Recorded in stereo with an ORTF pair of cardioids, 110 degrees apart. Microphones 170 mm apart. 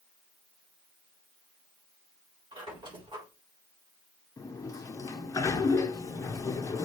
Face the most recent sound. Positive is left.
turn(degrees=20)